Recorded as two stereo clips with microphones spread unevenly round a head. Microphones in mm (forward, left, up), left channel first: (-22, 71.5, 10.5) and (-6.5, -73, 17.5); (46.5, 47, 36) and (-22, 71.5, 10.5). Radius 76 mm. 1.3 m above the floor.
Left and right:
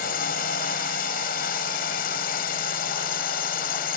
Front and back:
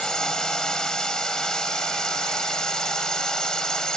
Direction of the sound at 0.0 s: 60° left.